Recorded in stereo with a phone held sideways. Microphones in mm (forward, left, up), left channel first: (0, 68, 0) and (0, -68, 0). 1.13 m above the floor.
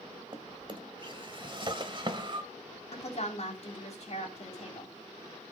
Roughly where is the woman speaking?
Left.